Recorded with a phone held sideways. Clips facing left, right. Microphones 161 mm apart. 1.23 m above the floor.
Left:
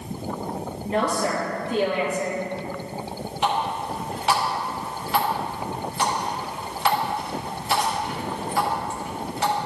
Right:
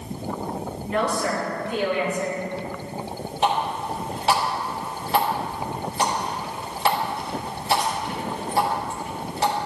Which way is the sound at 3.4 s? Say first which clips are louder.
Right 1 dB; 35° right (ahead or behind).